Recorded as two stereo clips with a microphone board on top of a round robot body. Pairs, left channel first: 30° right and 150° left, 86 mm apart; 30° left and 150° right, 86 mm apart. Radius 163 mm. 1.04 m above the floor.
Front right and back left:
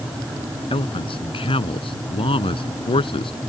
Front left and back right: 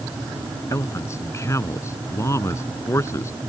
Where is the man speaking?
25° right.